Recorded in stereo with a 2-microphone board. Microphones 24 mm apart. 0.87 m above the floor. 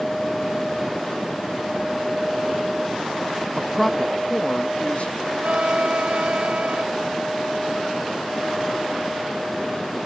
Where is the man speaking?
35° right (ahead or behind); by 5.3 s 75° left (ahead or behind).